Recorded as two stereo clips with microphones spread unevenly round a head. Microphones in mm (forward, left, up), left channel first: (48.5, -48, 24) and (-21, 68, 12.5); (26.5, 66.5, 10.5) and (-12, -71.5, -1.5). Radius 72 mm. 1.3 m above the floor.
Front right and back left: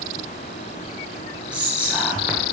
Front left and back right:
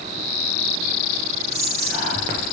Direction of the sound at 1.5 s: 155° right.